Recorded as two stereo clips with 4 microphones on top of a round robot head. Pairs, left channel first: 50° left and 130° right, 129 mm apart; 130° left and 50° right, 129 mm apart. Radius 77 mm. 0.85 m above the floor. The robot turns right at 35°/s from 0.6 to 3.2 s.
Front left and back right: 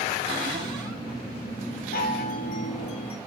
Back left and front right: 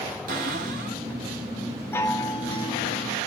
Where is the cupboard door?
75° right, 5 m; by 1.0 s 60° right, 5 m.